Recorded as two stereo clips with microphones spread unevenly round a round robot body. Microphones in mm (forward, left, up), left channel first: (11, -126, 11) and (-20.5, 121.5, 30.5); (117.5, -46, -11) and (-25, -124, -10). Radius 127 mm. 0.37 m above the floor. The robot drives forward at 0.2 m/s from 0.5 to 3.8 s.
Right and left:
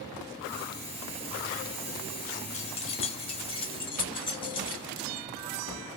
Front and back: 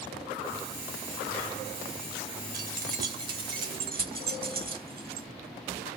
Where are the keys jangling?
140° right, 1.1 m; by 5.3 s 150° right, 1.2 m.